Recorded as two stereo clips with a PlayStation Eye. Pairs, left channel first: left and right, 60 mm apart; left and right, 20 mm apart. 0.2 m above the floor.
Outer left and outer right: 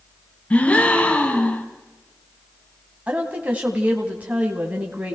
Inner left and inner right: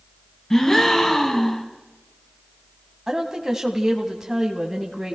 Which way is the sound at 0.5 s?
20° left (ahead or behind).